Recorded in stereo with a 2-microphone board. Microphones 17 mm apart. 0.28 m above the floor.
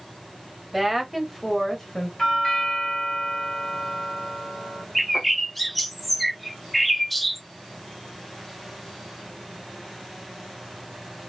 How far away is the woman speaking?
About 1.2 m.